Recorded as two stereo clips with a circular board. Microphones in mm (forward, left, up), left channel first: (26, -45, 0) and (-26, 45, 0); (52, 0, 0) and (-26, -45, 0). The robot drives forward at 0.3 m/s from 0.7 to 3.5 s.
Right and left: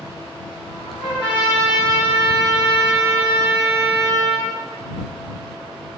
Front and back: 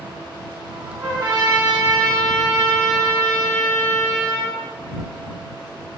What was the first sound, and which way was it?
A trumpet, 95° right.